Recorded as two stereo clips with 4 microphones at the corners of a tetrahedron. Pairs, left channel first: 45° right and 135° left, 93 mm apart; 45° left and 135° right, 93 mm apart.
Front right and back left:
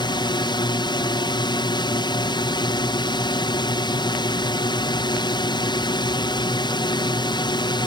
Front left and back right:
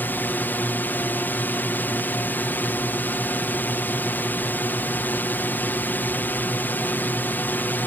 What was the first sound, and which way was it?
A drone, 20° right.